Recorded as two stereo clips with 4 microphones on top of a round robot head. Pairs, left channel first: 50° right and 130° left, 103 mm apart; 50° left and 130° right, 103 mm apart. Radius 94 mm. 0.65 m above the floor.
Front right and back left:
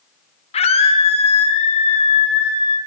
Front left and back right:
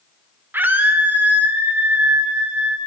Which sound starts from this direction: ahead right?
A scream, at 0.5 s.